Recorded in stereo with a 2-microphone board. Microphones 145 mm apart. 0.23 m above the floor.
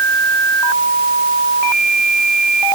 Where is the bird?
No bird in this recording.